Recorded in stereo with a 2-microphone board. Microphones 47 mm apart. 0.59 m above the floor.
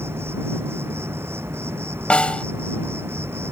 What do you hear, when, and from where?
0.0 s an insect: 65° right (ahead or behind)
2.1 s a snare drum: 25° left (ahead or behind)